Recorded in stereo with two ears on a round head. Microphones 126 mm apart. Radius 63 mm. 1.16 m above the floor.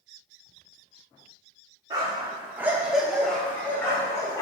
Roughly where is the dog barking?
Right.